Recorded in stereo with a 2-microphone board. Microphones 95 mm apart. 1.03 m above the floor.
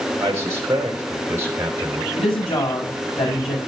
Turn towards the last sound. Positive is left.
turn(degrees=75)  # may be behind; listen again after turning